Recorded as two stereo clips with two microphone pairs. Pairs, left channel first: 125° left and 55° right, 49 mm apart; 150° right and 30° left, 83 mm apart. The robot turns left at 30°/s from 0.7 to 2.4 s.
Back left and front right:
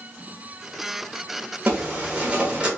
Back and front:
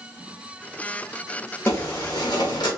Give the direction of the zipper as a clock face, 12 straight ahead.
3 o'clock.